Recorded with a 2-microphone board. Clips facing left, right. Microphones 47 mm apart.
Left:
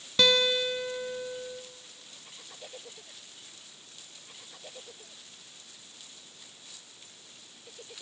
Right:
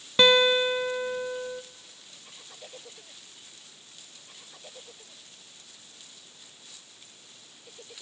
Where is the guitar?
30° right (ahead or behind), 0.6 m.